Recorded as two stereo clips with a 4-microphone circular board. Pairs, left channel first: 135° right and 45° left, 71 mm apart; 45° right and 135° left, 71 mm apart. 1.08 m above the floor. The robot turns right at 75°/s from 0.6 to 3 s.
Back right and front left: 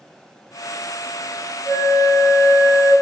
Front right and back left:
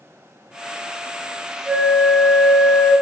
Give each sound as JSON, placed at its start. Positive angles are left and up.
{"t": 1.6, "sound": "a flute", "azimuth_deg": -160, "distance_m": 1.5}